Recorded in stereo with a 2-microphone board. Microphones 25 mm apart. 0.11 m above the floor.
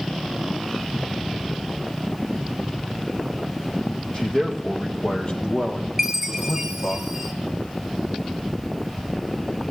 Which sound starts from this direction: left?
A man speaking, at 4.1 s.